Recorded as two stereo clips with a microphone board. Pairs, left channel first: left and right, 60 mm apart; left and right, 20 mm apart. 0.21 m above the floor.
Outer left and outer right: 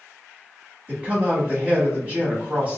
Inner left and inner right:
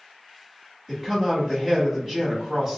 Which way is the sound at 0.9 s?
25° right (ahead or behind).